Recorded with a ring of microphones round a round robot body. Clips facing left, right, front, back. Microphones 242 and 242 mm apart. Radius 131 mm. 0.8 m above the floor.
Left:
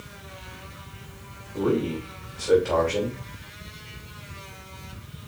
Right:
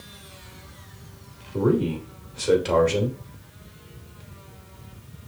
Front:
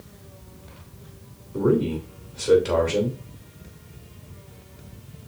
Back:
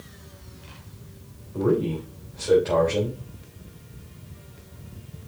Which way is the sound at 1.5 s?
55° right.